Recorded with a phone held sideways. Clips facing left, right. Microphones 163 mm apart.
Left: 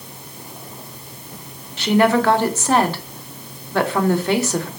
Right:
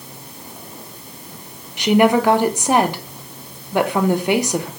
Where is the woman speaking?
15° right (ahead or behind), 0.6 m.